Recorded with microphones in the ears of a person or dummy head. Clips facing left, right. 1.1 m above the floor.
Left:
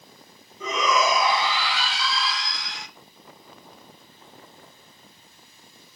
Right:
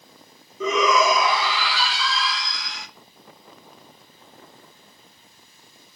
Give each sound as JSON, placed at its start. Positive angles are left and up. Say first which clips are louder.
{"t": 0.6, "sound": "a shout", "louder": "right 4 dB", "side_deg": -60, "distance_m": 1.1}